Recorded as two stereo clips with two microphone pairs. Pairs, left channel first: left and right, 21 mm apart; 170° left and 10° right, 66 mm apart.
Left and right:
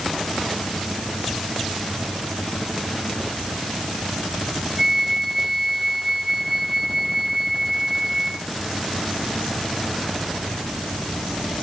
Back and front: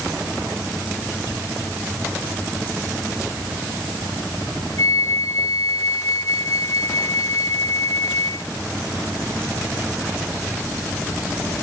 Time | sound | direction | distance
4.8 | a flute | 160° right | 1.2 m